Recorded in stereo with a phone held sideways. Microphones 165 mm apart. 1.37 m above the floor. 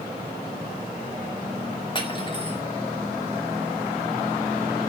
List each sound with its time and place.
1.9 s cutlery clinking: 30° left (ahead or behind), 2.0 m